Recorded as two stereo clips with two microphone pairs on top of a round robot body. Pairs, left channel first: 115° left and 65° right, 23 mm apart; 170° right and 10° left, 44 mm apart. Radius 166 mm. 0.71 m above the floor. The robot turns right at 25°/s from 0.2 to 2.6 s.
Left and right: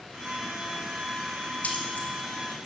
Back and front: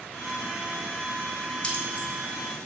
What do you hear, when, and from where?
1.6 s keys jangling: 125° left, 1.3 m; by 2.1 s 135° left, 1.3 m